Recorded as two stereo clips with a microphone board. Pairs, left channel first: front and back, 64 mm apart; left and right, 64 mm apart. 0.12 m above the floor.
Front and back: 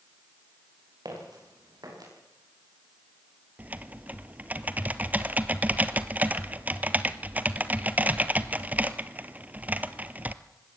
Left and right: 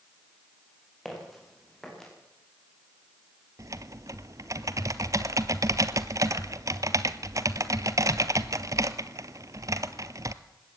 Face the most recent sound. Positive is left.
turn(degrees=-115)